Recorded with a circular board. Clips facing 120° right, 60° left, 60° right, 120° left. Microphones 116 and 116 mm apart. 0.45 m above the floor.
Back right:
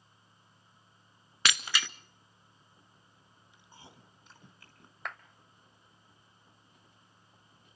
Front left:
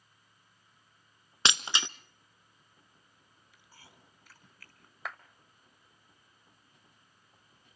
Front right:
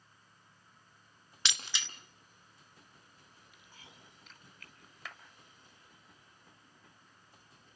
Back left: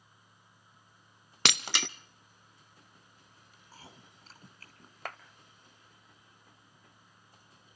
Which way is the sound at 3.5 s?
175° left.